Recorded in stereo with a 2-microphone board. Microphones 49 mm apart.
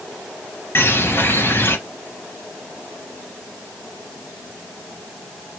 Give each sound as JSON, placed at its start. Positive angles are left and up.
{"t": 0.8, "sound": "a bird", "side_deg": 45, "distance_m": 2.0}